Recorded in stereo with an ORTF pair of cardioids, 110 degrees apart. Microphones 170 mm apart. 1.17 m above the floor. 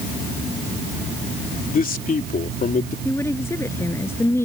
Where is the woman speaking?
15° left.